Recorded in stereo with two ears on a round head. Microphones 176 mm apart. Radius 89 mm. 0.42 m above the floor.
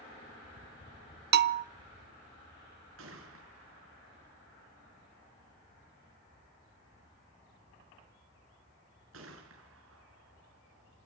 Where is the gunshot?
70° right (ahead or behind), 6 m.